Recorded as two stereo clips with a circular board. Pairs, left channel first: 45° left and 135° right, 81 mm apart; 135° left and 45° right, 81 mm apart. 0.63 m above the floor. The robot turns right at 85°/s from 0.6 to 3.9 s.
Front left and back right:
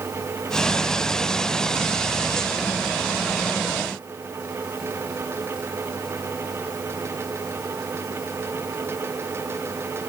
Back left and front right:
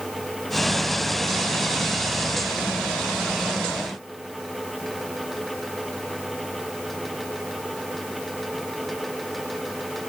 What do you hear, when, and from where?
Only background noise.